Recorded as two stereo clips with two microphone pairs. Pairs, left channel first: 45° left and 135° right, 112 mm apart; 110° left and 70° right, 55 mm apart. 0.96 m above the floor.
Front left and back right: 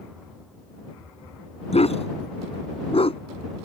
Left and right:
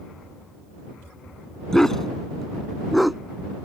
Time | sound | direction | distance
1.7 | a dog barking | 25° left | ?